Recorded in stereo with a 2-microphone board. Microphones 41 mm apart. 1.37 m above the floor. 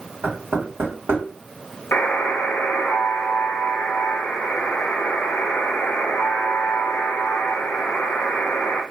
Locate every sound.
0.2 s knocking: 65° right (ahead or behind), 1.6 m
1.9 s a buzzer: 55° left (ahead or behind), 0.6 m